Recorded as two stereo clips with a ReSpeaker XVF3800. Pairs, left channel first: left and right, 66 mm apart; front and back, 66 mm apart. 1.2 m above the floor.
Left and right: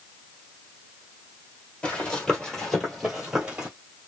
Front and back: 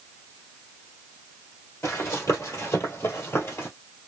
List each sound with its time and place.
1.8 s running footsteps: 20° left, 1.8 m; by 3.7 s 20° right, 1.7 m